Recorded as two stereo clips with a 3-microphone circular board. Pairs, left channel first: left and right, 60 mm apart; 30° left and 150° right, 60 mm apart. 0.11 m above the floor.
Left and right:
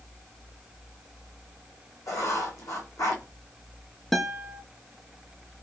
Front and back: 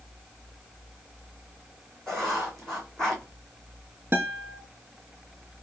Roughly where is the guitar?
Behind.